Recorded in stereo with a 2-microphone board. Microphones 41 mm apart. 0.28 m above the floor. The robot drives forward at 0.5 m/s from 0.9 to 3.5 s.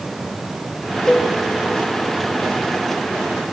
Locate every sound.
1.1 s a cowbell: 15° left (ahead or behind), 0.7 m